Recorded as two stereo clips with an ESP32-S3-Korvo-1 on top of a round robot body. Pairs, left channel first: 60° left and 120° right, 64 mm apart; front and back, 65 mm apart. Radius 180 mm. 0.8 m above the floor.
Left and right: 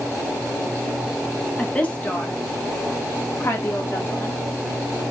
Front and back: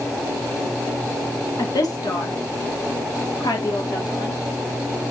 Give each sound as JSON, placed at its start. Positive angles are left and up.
{"t": 1.6, "sound": "a woman speaking", "azimuth_deg": -15, "distance_m": 1.6}